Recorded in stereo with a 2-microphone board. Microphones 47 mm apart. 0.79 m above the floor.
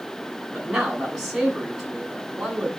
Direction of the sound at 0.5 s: 10° right (ahead or behind).